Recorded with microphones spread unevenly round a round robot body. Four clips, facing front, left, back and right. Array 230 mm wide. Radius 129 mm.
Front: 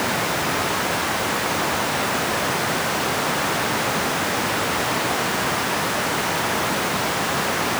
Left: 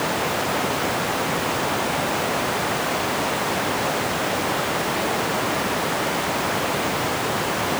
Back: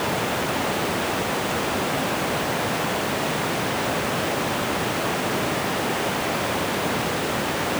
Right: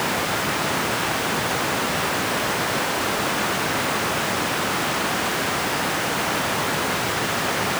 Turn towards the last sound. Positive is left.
No sound to turn to.